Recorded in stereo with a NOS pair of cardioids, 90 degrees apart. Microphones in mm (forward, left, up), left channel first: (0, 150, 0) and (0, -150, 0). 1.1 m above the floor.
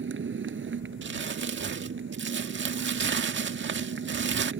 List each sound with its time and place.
0.0 s a motorcycle: 40° right
1.0 s crumpling: 40° right